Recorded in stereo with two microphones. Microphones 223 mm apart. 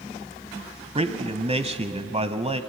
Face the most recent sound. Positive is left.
turn(degrees=-30)  # may be behind; listen again after turning